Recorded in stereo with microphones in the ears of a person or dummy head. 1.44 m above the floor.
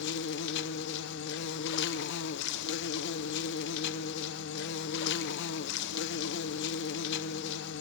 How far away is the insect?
About 0.9 m.